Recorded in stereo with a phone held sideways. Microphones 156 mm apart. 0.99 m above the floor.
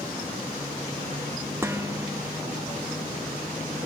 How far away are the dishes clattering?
About 1.1 m.